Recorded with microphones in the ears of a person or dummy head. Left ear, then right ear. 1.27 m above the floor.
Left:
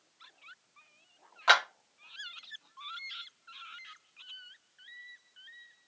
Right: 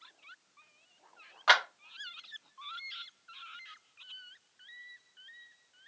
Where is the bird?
No bird in this recording.